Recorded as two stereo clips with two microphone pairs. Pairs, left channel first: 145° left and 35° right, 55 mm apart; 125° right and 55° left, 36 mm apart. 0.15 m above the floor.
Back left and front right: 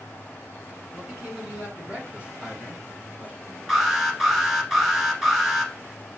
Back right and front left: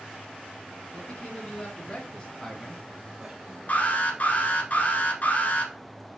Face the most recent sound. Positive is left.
turn(degrees=-115)